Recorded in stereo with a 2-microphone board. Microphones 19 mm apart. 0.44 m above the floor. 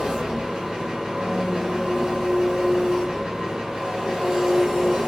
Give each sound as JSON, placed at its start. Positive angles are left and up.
{"t": 0.0, "sound": "an engine running", "side_deg": -60, "distance_m": 0.9}